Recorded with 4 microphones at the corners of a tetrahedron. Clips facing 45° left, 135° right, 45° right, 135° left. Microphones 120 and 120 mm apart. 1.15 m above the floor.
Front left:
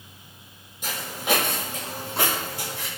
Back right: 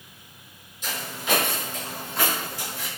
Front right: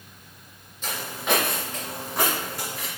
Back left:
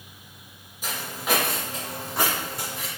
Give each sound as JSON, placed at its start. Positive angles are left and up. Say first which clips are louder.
{"t": 0.8, "sound": "footsteps", "louder": "front left 2 dB, front right 1 dB", "azimuth_deg": 55, "distance_m": 1.8}